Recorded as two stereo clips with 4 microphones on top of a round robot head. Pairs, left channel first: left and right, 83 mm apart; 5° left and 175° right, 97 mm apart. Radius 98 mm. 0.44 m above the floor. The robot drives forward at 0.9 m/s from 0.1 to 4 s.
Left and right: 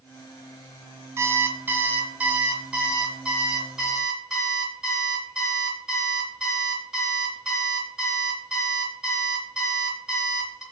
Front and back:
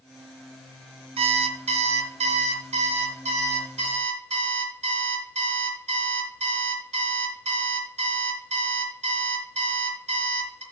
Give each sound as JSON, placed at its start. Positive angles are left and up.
{"t": 1.2, "sound": "an alarm clock", "azimuth_deg": -155, "distance_m": 0.9}